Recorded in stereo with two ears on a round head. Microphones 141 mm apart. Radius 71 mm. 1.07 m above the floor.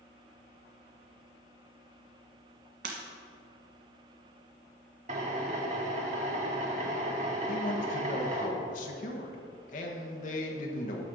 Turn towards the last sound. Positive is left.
turn(degrees=50)  # may be behind; listen again after turning